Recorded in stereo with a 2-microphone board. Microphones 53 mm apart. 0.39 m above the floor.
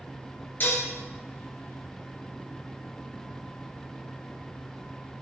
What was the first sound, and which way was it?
Dishes clattering, 40° left (ahead or behind).